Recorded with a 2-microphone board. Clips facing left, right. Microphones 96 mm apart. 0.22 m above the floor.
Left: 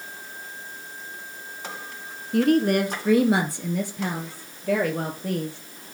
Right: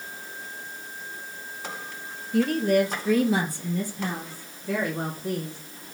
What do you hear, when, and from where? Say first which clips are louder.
2.3 s a woman speaking: left 2 dB; 65° left (ahead or behind), 2 m